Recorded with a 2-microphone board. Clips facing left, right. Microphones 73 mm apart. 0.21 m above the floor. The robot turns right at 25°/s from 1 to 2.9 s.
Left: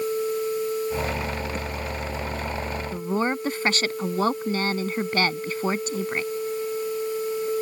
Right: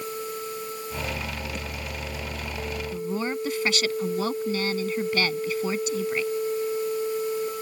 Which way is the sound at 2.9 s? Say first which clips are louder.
Left 4 dB; 40° left (ahead or behind).